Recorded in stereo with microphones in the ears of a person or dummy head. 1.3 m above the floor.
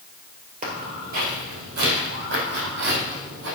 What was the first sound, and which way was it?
Footsteps, 40° right (ahead or behind).